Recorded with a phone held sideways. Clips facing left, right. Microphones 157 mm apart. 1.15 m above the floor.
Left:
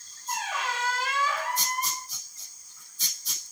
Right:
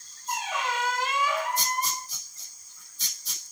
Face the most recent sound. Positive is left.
turn(degrees=-20)  # may be behind; listen again after turning